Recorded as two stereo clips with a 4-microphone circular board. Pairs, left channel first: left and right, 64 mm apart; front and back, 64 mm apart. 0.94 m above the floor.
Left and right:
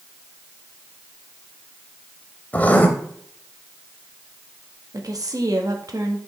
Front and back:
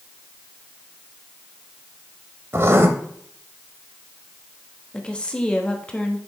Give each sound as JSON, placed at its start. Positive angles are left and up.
{"t": 2.5, "sound": "writing", "azimuth_deg": 150, "distance_m": 1.0}
{"t": 4.9, "sound": "a woman speaking", "azimuth_deg": -75, "distance_m": 1.2}